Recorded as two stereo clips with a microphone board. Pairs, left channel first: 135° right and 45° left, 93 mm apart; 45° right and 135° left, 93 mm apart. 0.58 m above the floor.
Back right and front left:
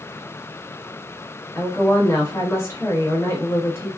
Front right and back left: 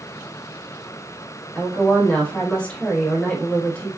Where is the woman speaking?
110° right, 1.0 m.